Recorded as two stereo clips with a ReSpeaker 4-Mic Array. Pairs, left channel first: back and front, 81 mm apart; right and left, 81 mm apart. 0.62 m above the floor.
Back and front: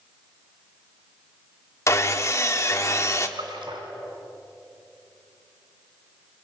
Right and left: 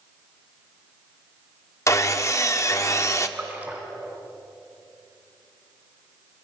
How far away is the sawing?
About 1.1 m.